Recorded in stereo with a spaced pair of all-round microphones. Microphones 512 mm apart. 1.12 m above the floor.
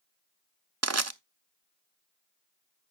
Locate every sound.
0.8 s crushing: 30° right (ahead or behind), 0.6 m